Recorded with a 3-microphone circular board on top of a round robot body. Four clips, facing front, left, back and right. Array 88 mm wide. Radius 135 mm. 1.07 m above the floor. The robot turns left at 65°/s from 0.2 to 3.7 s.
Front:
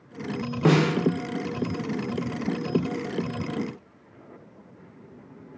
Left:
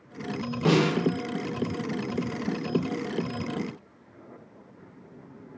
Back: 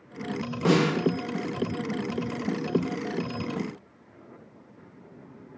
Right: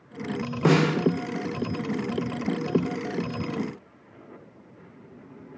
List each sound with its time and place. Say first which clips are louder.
0.7 s a snare drum: right 2 dB, front 1 dB; 50° right, 0.7 m; by 0.9 s 70° right, 0.7 m